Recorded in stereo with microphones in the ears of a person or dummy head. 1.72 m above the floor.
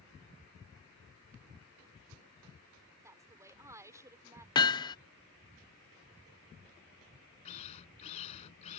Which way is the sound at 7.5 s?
35° left (ahead or behind).